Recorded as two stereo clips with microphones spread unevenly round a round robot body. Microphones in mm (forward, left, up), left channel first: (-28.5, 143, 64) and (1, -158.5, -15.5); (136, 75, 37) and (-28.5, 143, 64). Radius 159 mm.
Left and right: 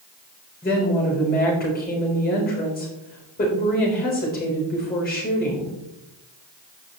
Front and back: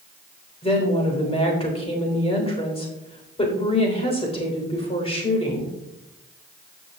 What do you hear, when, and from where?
0.6 s a woman speaking: 30° left, 3.5 m